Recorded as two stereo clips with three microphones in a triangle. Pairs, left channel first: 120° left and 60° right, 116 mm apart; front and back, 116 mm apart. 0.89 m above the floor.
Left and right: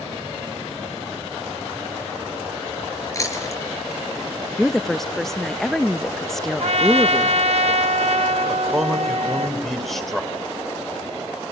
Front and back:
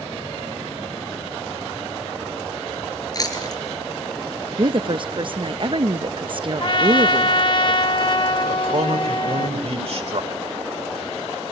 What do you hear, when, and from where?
3.1 s chewing: 55° left, 5 m
4.6 s a woman speaking: 155° right, 0.5 m
6.6 s a trumpet: 40° right, 0.9 m
8.5 s a man speaking: 150° right, 3 m